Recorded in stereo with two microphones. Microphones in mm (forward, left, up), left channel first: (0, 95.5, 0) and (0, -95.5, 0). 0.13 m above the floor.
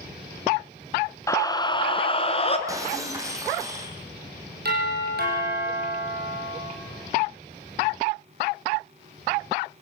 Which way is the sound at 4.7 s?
55° right (ahead or behind).